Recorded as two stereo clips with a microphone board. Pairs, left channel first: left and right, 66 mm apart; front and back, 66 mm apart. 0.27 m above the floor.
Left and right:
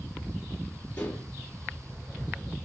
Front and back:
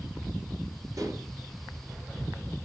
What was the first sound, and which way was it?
Dishes clattering, 150° left.